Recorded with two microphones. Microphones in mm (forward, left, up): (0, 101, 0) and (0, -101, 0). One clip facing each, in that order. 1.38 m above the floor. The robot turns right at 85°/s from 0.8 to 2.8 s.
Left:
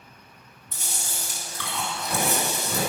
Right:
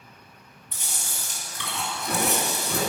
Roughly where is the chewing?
Behind left.